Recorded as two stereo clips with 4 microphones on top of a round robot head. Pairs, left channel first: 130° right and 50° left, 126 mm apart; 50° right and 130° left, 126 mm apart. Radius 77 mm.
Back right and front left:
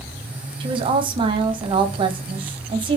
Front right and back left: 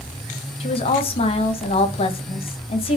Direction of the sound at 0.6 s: 5° right.